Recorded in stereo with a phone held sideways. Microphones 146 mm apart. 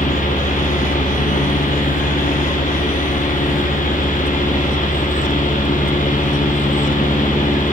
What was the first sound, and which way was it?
A fan, 65° left (ahead or behind).